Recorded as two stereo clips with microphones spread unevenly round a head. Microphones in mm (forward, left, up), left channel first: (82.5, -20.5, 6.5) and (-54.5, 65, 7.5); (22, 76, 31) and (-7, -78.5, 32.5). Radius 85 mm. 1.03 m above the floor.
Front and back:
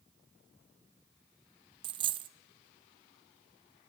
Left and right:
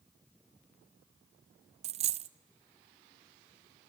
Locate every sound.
1.8 s a dropped coin: 150° right, 0.5 m